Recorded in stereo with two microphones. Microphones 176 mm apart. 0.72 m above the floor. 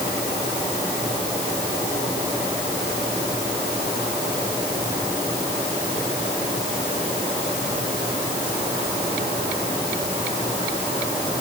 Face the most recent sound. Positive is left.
No sound to turn to.